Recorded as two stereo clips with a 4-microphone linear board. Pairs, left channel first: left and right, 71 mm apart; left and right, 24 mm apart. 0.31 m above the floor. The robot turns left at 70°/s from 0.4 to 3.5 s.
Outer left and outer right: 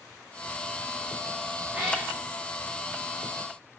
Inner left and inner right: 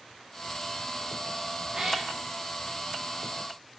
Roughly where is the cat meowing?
Right.